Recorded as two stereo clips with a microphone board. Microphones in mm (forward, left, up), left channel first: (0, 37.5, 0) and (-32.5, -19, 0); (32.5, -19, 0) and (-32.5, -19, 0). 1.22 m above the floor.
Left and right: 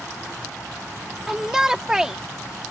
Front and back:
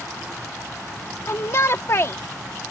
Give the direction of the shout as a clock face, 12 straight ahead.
1 o'clock.